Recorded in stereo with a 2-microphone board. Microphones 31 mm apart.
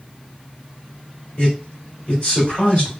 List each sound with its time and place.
1.4 s a man speaking: 35° left (ahead or behind), 1.8 m